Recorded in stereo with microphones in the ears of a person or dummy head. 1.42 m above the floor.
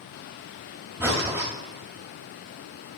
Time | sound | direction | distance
1.0 | breathing | 10° right (ahead or behind) | 1.3 m